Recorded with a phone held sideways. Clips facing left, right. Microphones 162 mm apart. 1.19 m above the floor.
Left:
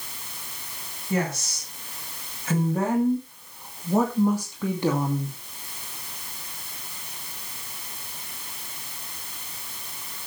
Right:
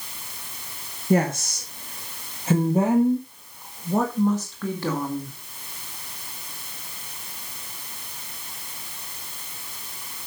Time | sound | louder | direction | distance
1.1 | a woman speaking | right 6 dB | 55° right (ahead or behind) | 2 m